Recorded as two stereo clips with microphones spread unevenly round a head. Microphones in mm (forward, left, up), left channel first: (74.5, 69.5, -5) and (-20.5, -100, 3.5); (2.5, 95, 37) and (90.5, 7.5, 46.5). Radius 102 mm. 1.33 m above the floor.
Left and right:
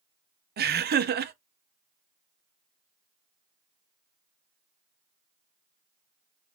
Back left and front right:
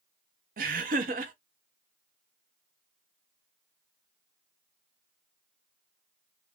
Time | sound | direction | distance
0.6 | laughter | 80° right | 0.7 m